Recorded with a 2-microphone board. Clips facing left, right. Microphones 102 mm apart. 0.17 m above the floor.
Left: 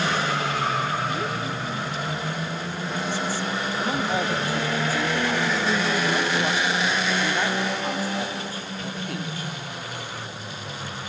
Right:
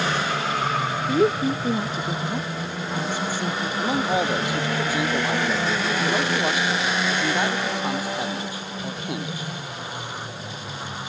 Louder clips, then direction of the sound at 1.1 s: Right 8 dB; 50° right (ahead or behind).